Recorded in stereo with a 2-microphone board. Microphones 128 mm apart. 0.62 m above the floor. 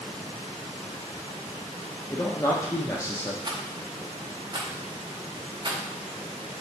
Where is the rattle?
35° right (ahead or behind), 0.6 m.